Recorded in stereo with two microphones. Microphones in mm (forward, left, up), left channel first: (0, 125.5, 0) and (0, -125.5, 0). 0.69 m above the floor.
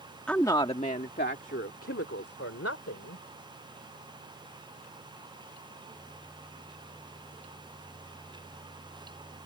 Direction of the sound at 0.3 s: 5° left (ahead or behind).